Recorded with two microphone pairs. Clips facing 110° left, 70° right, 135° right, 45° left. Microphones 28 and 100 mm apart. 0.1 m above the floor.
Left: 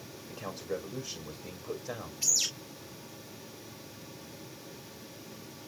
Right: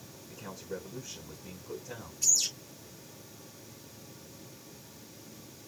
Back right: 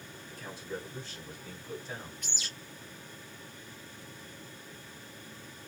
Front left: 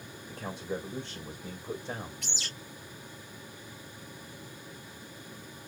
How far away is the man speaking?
About 3.5 m.